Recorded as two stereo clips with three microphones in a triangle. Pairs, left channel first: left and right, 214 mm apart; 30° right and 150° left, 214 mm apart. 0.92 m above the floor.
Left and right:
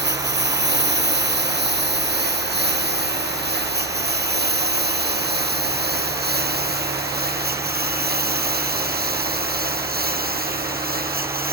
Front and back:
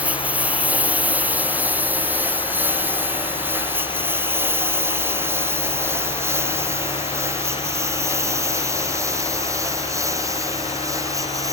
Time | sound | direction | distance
0.0 | a lawn mower | 125° right | ?